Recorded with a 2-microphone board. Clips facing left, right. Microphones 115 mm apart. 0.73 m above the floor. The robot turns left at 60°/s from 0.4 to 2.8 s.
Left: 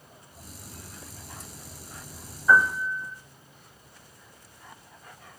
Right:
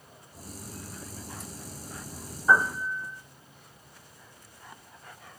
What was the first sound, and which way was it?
A piano, 30° right (ahead or behind).